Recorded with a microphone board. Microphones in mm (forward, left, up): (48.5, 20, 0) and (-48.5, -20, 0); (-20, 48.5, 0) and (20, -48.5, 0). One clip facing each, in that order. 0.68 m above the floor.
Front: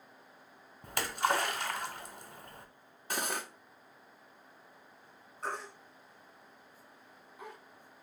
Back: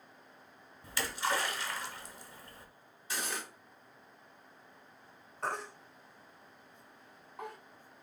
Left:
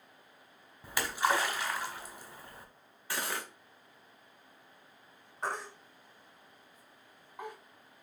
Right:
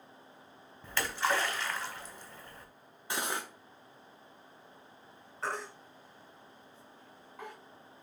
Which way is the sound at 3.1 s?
Straight ahead.